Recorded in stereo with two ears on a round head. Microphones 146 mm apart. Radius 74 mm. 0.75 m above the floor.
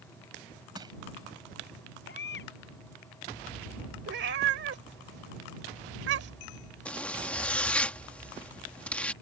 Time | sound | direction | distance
0.8 | crushing | 30° right (ahead or behind) | ?
2.1 | a baby crying | 70° left (ahead or behind) | ?
4.1 | a cat meowing | 80° right | ?
6.8 | a zipper | 10° left (ahead or behind) | ?